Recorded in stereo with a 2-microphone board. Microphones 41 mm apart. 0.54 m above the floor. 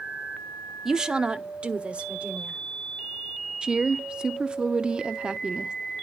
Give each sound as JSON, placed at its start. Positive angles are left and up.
{"t": 0.8, "sound": "a woman speaking", "side_deg": -10, "distance_m": 0.6}
{"t": 3.6, "sound": "a woman speaking", "side_deg": -20, "distance_m": 0.7}